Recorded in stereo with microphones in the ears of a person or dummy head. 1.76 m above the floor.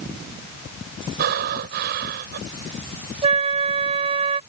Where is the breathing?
55° right (ahead or behind).